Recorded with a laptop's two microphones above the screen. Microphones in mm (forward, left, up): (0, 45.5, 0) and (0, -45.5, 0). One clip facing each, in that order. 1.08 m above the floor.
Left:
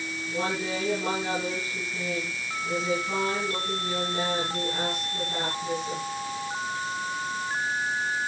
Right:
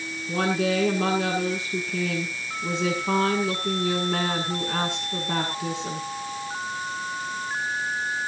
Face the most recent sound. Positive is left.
turn(degrees=-80)